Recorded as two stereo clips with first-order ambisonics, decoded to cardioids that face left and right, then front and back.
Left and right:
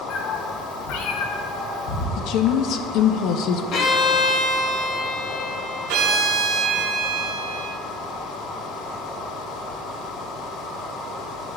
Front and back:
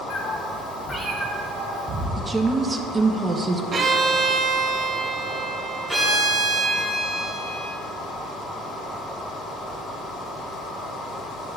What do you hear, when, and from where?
0.1 s a cat meowing: 45° left, 1.0 m; by 2.1 s 120° left, 1.4 m
2.2 s a woman speaking: 105° left, 0.5 m
3.7 s a violin: 120° left, 0.8 m
5.9 s a violin: 85° right, 2.0 m